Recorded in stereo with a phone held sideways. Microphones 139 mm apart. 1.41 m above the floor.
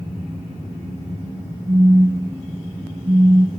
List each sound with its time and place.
1.7 s a phone buzzing: 35° right (ahead or behind), 1.2 m